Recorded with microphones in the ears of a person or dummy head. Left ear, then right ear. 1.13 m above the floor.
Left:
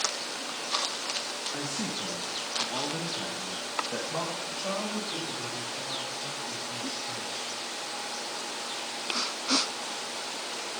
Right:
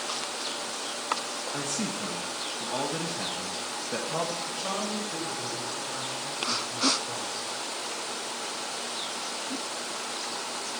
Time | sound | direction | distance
1.5 | a man speaking | 10° right (ahead or behind) | 1.5 m
4.5 | a man speaking | centre (ahead or behind) | 4 m